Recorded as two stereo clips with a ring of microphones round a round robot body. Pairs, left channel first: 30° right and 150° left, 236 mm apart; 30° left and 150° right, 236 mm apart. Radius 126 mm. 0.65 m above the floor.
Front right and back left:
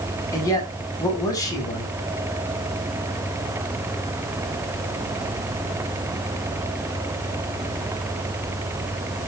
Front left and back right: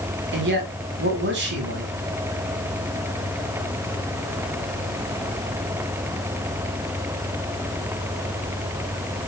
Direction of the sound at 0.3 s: 105° right.